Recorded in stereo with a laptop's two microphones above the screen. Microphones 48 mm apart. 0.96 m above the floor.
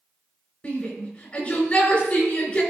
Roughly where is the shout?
Left.